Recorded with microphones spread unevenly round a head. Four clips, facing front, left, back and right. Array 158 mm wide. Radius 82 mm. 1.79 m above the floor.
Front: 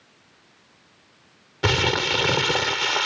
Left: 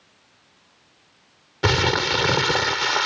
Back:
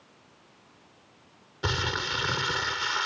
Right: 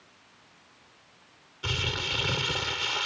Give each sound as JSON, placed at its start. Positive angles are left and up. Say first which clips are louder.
{"t": 1.6, "sound": "crumpling", "louder": "left 14 dB, front 8 dB", "azimuth_deg": 70, "distance_m": 0.6}